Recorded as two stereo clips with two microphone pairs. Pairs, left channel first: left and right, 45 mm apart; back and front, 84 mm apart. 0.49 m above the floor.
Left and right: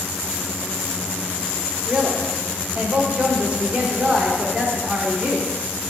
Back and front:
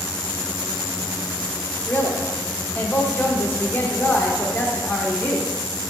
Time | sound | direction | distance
1.9 | a woman speaking | 130° right | 0.9 m